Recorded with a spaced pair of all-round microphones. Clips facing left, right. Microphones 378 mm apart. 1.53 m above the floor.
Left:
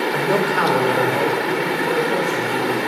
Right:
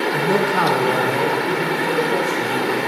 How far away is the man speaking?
About 0.7 m.